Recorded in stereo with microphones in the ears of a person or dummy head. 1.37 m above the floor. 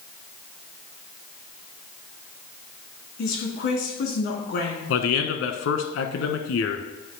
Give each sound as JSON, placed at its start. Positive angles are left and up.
{"t": 3.2, "sound": "a woman speaking", "side_deg": 55, "distance_m": 2.5}
{"t": 4.9, "sound": "a man speaking", "side_deg": 70, "distance_m": 1.2}